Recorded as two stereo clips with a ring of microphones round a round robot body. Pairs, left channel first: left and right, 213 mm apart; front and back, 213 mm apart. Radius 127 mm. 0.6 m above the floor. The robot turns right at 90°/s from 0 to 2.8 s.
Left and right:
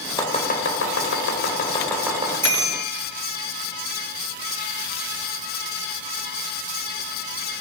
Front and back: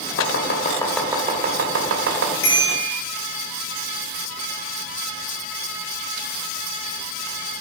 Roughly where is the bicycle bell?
Ahead.